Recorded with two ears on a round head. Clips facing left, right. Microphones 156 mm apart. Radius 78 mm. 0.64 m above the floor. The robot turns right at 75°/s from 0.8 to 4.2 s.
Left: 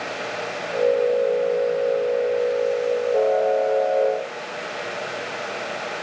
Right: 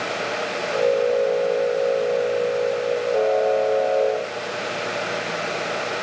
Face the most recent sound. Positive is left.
No sound to turn to.